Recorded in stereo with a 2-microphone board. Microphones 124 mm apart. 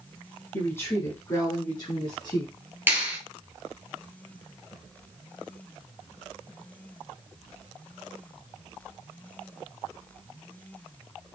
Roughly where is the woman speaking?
Centre.